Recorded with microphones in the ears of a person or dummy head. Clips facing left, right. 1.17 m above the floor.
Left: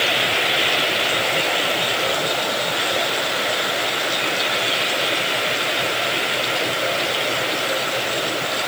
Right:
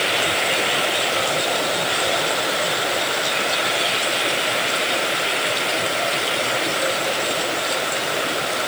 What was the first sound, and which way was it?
Only background noise.